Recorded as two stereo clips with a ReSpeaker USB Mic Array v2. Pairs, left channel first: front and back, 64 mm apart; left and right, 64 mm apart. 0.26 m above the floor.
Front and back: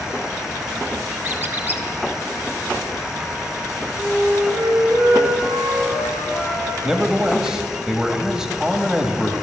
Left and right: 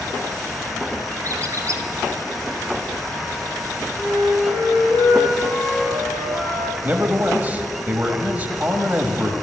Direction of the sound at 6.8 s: 110° right.